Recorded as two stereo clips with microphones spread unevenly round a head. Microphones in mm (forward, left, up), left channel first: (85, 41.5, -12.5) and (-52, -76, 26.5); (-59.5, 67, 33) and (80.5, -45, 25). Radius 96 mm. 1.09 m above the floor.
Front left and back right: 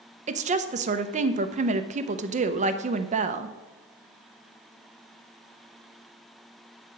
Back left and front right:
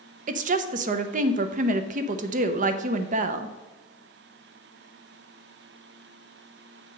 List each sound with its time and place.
0.3 s a woman speaking: 85° right, 0.7 m